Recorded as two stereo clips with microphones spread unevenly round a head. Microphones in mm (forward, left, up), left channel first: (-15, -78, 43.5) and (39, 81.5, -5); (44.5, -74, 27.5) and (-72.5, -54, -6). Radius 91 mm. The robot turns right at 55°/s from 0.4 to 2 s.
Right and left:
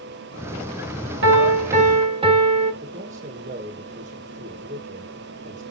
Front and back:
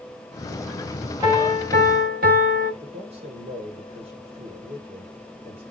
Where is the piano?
95° left, 2 m; by 2.7 s 135° left, 2 m.